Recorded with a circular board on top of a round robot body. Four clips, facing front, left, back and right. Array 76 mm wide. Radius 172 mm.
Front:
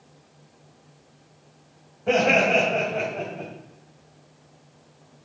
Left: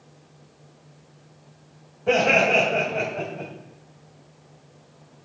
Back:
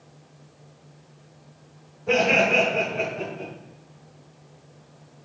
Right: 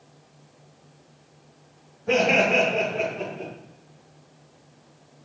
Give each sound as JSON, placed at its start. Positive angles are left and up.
{"t": 2.1, "sound": "laughter", "azimuth_deg": 55, "distance_m": 2.5}